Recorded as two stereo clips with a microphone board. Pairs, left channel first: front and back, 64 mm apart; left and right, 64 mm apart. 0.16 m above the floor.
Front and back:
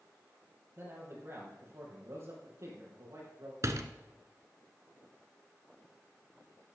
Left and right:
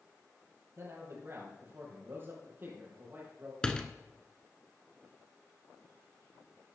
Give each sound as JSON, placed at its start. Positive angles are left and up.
{"t": 0.8, "sound": "a man speaking", "azimuth_deg": -135, "distance_m": 5.0}
{"t": 3.6, "sound": "a door slam", "azimuth_deg": 165, "distance_m": 1.1}